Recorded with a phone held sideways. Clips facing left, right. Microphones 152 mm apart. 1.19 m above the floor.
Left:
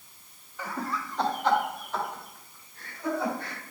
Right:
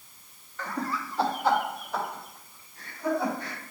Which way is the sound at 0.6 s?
10° left (ahead or behind).